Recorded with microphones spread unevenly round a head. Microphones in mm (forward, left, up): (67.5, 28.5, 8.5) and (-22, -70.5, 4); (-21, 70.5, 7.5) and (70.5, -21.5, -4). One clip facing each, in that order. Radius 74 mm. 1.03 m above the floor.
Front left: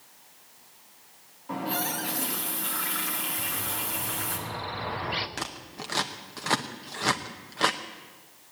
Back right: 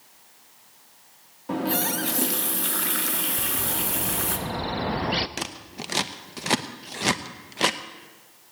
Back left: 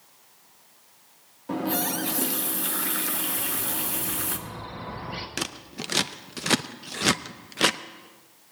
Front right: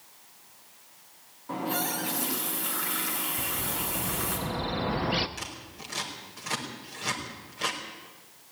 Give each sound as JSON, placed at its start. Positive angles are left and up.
{"t": 1.5, "sound": "a running tap", "azimuth_deg": 180, "distance_m": 1.3}
{"t": 3.4, "sound": "a bird", "azimuth_deg": -90, "distance_m": 0.7}
{"t": 5.4, "sound": "scissors", "azimuth_deg": 155, "distance_m": 0.6}